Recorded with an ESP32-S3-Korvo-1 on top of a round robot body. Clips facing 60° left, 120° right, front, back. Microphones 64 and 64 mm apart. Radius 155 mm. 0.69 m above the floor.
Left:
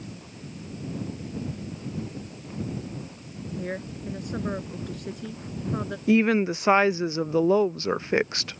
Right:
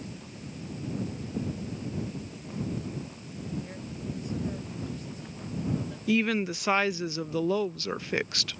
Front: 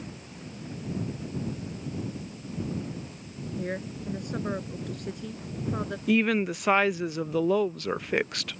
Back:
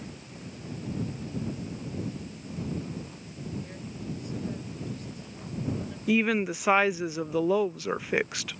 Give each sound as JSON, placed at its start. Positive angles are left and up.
{"t": 3.6, "sound": "a woman speaking", "azimuth_deg": 30}
{"t": 6.1, "sound": "a woman speaking", "azimuth_deg": 100}